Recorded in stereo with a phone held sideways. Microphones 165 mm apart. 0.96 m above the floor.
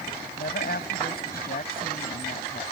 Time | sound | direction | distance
0.4 | a woman speaking | 70° left (ahead or behind) | ?